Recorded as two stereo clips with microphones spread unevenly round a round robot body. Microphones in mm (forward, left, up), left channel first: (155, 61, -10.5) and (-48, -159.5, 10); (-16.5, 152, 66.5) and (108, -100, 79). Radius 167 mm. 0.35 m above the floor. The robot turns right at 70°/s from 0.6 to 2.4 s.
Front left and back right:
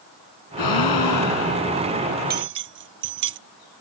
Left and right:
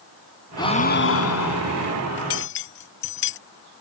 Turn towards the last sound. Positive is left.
turn(degrees=170)